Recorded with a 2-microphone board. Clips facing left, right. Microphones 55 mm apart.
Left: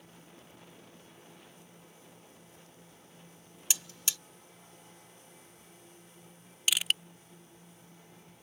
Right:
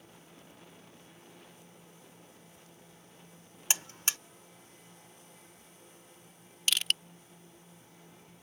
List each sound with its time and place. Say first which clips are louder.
3.7 s a buzzer: right 3 dB; 45° right (ahead or behind)
6.7 s crushing: left 1 dB; 10° left (ahead or behind)